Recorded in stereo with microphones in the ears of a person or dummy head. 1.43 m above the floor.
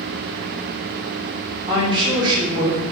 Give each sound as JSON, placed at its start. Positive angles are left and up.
{"t": 1.7, "sound": "a woman speaking", "side_deg": -25, "distance_m": 1.1}